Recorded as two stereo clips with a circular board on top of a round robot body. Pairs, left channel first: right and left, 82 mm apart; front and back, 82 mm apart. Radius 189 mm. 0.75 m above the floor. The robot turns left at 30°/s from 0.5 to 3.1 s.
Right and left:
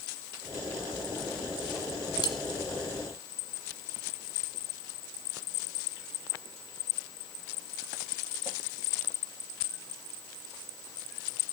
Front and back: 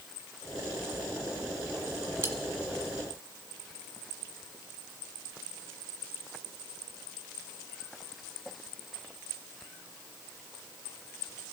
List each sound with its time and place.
2.2 s cutlery clinking: 120° right, 1.3 m; by 2.4 s 125° right, 1.3 m